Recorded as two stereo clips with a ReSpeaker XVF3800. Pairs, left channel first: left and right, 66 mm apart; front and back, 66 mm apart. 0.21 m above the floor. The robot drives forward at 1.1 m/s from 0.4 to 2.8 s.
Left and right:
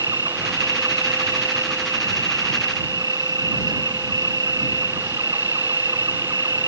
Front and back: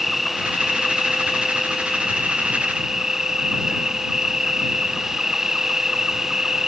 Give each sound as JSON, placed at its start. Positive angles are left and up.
{"t": 0.0, "sound": "an insect", "azimuth_deg": -90}